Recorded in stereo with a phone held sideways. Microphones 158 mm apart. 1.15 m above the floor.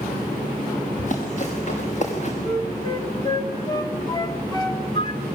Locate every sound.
1.0 s running footsteps: 55° left (ahead or behind), 6.5 m; by 2.3 s 50° left (ahead or behind), 6 m
2.4 s a flute: 25° left (ahead or behind), 2.5 m